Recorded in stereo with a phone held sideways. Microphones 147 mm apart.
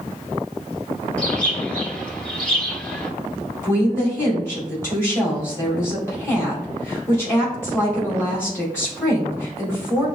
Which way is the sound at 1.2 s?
10° left (ahead or behind).